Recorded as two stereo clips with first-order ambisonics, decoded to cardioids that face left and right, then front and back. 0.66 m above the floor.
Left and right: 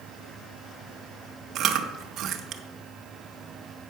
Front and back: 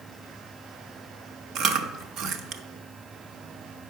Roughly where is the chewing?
Behind right.